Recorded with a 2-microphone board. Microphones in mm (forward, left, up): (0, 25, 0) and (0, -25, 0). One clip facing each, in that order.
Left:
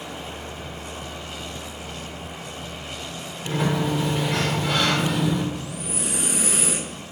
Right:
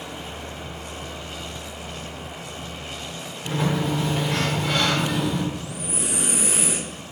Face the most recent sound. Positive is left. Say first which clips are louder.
# even
turn(degrees=-20)  # may be behind; listen again after turning